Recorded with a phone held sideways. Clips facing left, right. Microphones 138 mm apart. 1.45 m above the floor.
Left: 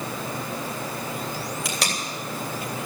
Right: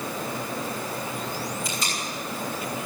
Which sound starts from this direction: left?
Tape being pulled, at 1.6 s.